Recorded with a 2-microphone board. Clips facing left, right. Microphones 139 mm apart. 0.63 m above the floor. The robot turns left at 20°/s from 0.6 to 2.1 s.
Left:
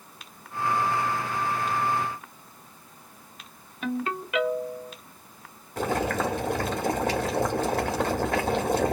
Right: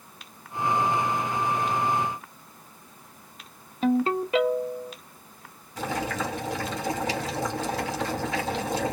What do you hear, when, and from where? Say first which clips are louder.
3.8 s a ringtone: right 7 dB; 30° right (ahead or behind), 0.8 m
5.8 s boiling: left 3 dB; 55° left (ahead or behind), 1.4 m